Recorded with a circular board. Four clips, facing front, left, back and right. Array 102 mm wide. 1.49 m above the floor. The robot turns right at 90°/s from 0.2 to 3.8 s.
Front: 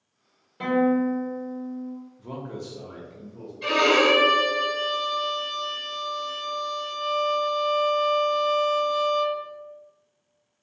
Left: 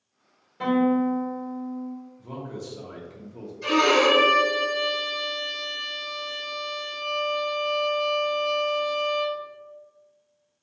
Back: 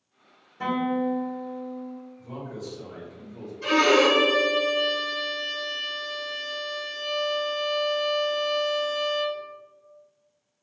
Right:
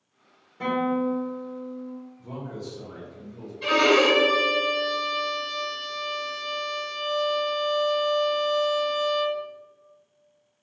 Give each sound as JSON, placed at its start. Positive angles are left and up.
{"t": 0.6, "sound": "a guitar", "azimuth_deg": 20, "distance_m": 1.2}
{"t": 2.2, "sound": "a man speaking", "azimuth_deg": 0, "distance_m": 0.6}
{"t": 3.6, "sound": "a violin", "azimuth_deg": -55, "distance_m": 1.3}